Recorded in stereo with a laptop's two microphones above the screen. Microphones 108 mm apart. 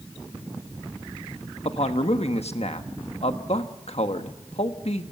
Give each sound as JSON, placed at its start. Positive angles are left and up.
{"t": 1.6, "sound": "a man speaking", "side_deg": 75, "distance_m": 1.3}